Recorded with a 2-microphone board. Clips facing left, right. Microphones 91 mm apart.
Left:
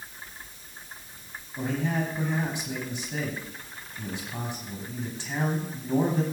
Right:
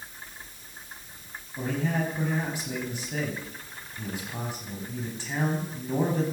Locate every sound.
1.6 s a man speaking: 5° right (ahead or behind), 5 m